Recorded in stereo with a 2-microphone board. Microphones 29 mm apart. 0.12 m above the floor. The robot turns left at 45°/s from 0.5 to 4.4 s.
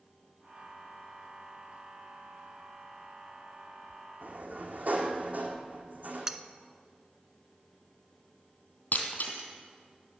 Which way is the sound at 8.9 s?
65° left (ahead or behind).